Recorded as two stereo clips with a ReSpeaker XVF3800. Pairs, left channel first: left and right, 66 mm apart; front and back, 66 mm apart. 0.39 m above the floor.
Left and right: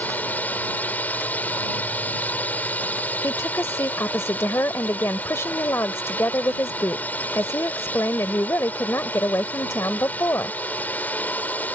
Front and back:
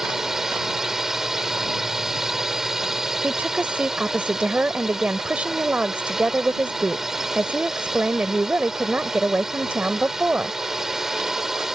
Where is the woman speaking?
115° left.